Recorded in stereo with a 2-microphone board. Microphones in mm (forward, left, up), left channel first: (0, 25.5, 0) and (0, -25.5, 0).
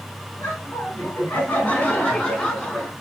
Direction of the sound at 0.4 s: 45° left (ahead or behind).